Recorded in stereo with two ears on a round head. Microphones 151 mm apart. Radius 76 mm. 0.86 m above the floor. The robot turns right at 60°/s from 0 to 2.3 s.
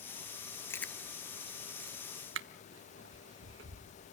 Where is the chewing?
15° left (ahead or behind), 1.0 m; by 4.0 s 80° right, 1.0 m.